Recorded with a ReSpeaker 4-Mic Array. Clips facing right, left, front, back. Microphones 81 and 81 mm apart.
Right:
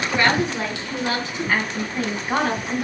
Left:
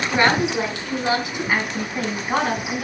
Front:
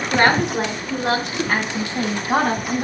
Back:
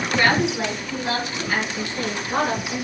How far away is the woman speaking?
About 3.5 m.